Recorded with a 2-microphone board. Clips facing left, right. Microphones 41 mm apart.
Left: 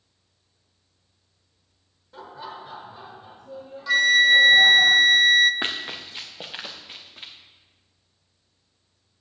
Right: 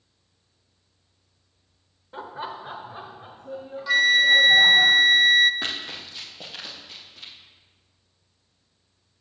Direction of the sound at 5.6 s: 30° left (ahead or behind).